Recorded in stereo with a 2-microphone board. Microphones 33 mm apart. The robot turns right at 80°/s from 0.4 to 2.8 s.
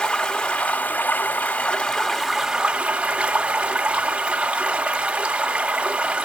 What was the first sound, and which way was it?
Running water, 30° left.